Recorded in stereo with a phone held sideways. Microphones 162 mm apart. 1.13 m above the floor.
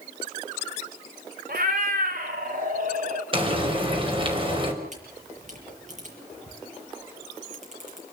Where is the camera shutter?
55° right (ahead or behind), 7.5 m.